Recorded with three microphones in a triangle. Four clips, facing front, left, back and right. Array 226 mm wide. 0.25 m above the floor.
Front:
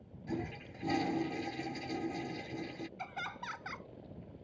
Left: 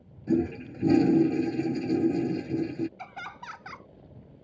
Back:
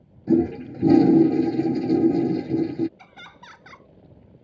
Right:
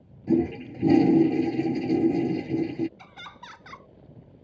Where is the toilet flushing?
160° right.